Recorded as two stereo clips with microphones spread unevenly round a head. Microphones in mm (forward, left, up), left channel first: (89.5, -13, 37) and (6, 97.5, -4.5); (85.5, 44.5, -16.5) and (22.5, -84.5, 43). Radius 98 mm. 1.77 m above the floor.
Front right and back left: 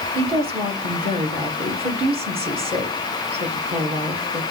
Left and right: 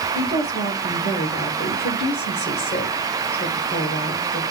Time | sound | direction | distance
0.1 | a woman speaking | 80° left | 3.5 m